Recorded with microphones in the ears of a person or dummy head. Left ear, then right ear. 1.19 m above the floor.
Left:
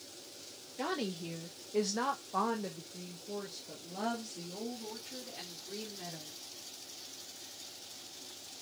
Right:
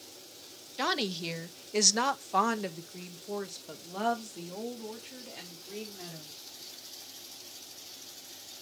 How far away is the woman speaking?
About 1.3 m.